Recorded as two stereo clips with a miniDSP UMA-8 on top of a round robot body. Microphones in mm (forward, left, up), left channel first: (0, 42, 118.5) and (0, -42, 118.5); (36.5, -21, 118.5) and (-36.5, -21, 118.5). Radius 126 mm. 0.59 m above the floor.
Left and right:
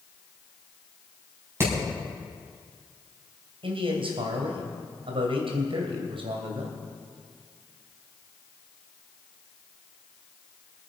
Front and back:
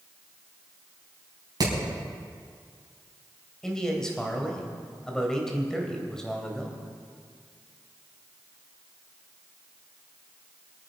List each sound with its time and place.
1.6 s hammering: 150° right, 5 m
3.6 s a man speaking: 85° right, 3 m